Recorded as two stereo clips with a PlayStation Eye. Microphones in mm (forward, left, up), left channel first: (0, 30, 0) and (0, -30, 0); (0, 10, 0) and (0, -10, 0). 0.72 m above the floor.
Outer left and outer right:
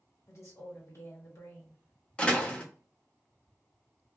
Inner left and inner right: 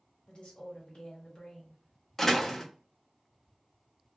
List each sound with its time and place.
0.3 s a woman speaking: 55° left (ahead or behind), 1.5 m
2.2 s a door slam: 20° left (ahead or behind), 0.7 m